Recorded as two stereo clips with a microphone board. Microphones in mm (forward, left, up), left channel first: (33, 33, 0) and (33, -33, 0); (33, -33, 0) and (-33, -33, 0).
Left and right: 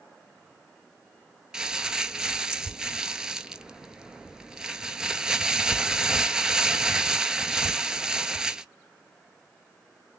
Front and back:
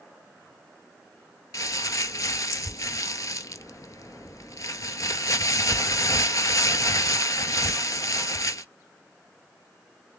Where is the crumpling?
10° right, 0.5 m.